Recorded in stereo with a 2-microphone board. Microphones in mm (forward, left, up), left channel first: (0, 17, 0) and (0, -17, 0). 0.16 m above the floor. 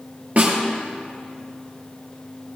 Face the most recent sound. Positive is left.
turn(degrees=-55)  # may be behind; listen again after turning